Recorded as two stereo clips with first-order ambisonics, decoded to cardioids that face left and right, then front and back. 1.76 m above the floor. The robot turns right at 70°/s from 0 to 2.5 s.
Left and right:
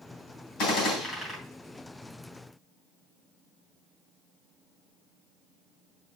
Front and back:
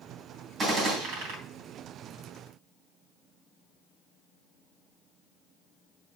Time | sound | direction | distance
0.6 | a gunshot | 115° left | 3 m